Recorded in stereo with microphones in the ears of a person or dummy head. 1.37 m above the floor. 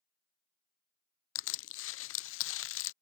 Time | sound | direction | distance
1.4 | crushing | 65° left (ahead or behind) | ?